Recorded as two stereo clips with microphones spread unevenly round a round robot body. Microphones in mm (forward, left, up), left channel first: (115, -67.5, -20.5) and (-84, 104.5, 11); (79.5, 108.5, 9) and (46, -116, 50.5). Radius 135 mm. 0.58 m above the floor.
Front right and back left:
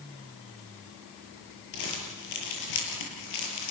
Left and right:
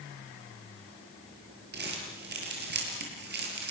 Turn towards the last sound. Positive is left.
turn(degrees=-60)